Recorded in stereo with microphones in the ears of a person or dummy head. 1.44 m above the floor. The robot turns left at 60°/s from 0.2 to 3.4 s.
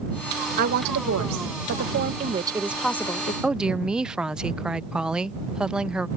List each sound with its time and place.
0.6 s a woman speaking: 45° right; by 3.3 s 145° left
3.4 s a woman speaking: 5° right (ahead or behind)